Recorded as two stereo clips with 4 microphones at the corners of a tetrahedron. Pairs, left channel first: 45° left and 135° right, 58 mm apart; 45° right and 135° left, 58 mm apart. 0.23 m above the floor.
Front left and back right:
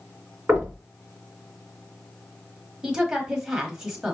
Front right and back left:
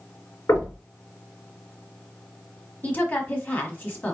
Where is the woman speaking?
65° right, 1.2 m.